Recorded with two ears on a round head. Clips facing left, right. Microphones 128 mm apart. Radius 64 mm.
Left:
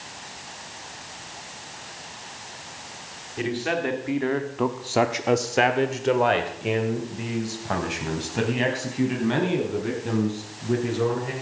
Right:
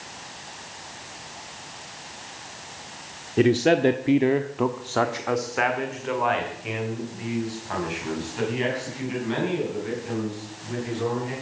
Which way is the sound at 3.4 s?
55° right (ahead or behind).